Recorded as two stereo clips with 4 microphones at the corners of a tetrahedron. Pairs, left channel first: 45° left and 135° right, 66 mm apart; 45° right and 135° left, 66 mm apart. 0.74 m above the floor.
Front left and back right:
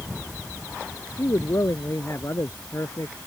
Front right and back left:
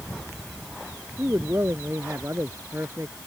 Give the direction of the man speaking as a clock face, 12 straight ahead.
9 o'clock.